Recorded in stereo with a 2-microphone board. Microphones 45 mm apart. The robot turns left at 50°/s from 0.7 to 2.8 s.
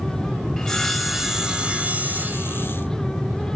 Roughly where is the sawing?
Ahead.